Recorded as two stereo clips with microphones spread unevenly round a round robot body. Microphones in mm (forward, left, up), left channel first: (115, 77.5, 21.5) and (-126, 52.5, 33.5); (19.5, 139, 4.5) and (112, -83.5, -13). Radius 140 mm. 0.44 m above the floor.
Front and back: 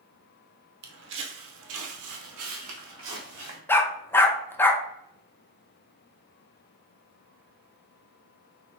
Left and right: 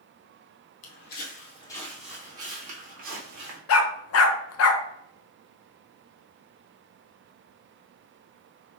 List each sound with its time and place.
0.8 s footsteps: 150° left, 0.8 m; by 3.6 s 120° right, 1.2 m
3.7 s a dog barking: 85° left, 0.7 m